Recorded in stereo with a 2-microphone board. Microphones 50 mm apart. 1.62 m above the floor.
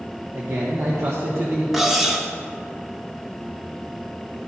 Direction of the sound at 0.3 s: 60° right (ahead or behind).